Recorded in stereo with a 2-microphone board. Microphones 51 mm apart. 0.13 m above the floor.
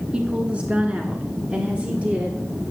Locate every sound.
0.1 s a woman speaking: 20° right (ahead or behind), 1.3 m; by 2.4 s 25° right (ahead or behind), 2 m